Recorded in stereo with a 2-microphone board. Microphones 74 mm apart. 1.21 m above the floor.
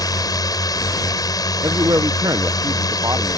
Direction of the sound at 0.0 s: 60° left (ahead or behind).